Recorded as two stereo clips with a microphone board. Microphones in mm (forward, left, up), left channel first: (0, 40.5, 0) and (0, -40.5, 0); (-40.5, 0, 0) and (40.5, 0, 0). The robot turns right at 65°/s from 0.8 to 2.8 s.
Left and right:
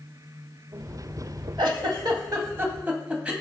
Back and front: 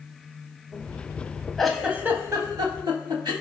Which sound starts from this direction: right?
A giggle, at 1.6 s.